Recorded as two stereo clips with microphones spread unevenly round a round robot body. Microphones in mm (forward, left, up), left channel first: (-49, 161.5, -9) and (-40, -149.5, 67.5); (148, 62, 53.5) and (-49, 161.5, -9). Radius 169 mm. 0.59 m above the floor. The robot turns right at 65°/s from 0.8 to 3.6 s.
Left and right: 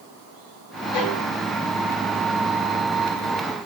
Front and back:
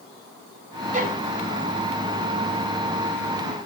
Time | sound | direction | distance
0.9 | a violin | 100° left | 4 m